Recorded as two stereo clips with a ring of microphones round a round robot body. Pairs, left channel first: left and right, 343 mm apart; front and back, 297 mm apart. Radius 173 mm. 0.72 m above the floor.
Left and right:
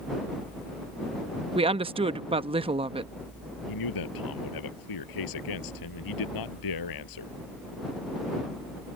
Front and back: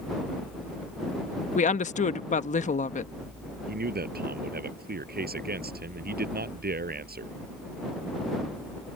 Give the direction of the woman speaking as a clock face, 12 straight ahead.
1 o'clock.